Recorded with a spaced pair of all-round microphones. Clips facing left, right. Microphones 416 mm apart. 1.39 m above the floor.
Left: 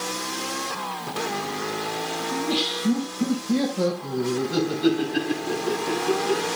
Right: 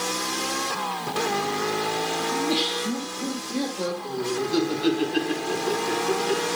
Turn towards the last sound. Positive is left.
turn(degrees=45)  # may be behind; listen again after turning